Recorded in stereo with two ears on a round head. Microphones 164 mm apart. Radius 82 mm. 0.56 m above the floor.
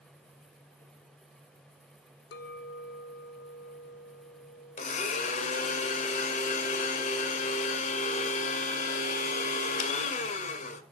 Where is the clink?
60° left (ahead or behind), 1.1 m.